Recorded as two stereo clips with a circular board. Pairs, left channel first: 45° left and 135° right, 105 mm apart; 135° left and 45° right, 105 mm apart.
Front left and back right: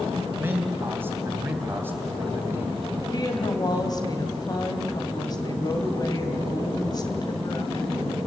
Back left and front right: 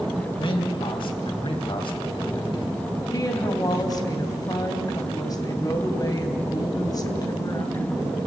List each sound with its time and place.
0.3 s a man speaking: 160° left, 3 m
3.1 s a woman speaking: 90° left, 3 m